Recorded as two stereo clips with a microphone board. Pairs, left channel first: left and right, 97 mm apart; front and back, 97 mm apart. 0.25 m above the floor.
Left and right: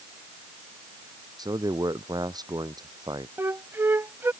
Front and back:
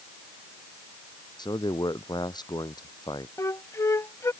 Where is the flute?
40° right.